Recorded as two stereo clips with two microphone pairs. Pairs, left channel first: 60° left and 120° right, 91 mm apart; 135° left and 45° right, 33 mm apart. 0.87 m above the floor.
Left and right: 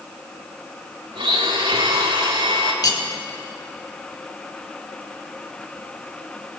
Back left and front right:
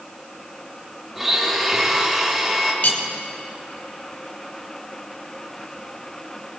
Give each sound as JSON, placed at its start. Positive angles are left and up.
{"t": 1.1, "sound": "a blender", "azimuth_deg": -130, "distance_m": 1.8}
{"t": 2.8, "sound": "cutlery clinking", "azimuth_deg": 105, "distance_m": 1.2}